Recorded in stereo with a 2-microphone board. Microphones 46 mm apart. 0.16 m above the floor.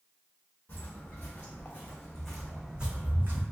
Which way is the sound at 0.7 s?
45° left (ahead or behind).